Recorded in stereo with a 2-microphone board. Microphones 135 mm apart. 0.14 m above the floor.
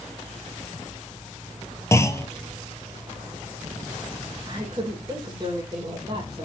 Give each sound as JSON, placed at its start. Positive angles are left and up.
{"t": 1.9, "sound": "a clunk", "side_deg": 20, "distance_m": 0.8}
{"t": 4.5, "sound": "a woman speaking", "side_deg": -30, "distance_m": 4.5}